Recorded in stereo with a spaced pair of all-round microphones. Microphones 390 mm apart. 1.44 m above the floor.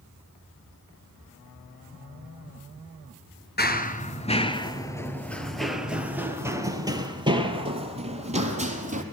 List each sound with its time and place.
3.6 s running footsteps: 25° left (ahead or behind), 1.7 m; by 9.0 s 20° right (ahead or behind), 3.5 m